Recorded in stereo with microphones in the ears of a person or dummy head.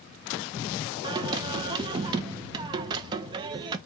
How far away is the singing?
About 0.5 m.